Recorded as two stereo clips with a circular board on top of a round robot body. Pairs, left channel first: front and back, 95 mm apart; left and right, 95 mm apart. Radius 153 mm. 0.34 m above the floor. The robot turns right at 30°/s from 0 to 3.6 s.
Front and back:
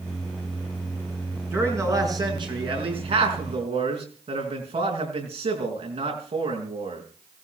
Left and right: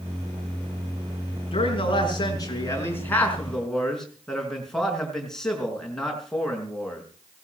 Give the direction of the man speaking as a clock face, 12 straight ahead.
8 o'clock.